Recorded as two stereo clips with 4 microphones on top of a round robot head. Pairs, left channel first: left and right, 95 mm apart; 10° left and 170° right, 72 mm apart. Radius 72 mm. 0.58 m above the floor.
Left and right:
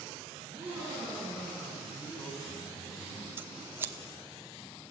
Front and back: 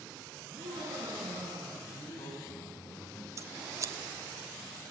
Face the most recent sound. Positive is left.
turn(degrees=-150)